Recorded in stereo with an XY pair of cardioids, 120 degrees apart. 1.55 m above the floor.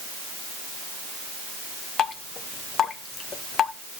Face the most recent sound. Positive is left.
turn(degrees=45)